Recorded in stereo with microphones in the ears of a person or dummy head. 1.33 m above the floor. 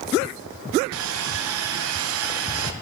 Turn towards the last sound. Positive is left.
turn(degrees=-75)  # may be behind; listen again after turning